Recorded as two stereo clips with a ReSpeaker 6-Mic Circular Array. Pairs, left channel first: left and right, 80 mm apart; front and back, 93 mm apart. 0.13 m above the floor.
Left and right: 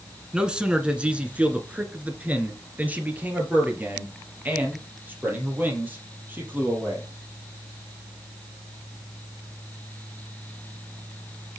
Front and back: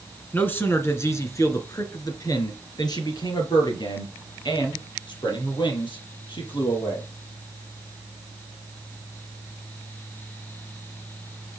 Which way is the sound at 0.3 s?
25° right.